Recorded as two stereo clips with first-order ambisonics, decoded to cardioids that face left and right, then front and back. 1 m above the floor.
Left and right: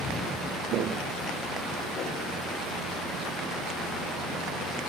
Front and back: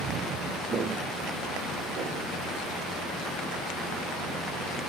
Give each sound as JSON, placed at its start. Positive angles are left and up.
{"t": 0.7, "sound": "footsteps", "azimuth_deg": -120, "distance_m": 1.5}